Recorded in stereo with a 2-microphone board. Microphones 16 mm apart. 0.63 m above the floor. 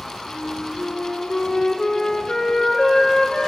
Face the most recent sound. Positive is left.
turn(degrees=80)